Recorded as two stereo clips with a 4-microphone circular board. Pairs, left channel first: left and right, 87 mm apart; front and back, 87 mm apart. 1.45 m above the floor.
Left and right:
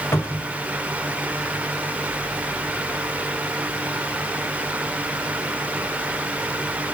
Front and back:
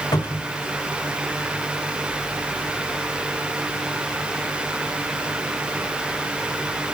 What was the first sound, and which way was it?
A cupboard door, 35° left.